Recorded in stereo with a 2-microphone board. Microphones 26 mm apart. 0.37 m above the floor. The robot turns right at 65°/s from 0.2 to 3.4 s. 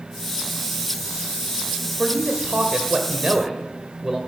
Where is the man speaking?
130° right, 1.8 m; by 4.2 s 40° right, 1.8 m.